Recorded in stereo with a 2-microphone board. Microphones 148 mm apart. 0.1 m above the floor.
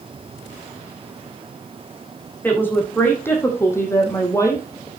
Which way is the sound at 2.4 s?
15° left (ahead or behind).